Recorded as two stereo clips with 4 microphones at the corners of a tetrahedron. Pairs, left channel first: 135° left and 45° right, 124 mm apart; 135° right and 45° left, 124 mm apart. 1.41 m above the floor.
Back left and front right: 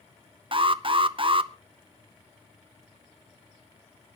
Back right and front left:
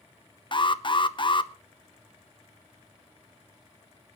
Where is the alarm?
90° right, 0.7 m.